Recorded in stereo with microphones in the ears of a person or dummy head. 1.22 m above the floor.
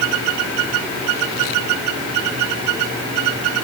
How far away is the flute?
No flute in this recording.